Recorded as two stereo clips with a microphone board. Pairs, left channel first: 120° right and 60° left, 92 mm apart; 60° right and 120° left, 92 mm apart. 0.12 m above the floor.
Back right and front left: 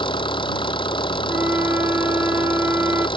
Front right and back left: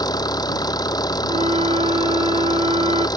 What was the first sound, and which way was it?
An engine running, 100° right.